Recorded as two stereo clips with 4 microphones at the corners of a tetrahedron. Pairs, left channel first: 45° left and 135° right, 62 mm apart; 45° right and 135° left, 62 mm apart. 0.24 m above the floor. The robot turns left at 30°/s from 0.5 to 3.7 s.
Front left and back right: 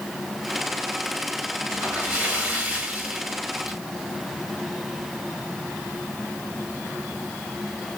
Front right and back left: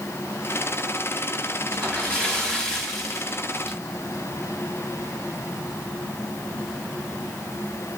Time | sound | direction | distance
1.7 | a splash | 85° right | 1.1 m